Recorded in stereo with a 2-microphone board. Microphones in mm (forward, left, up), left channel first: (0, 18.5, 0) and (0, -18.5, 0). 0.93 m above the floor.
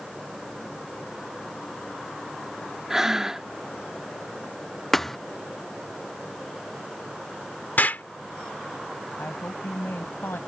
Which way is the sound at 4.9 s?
5° left (ahead or behind).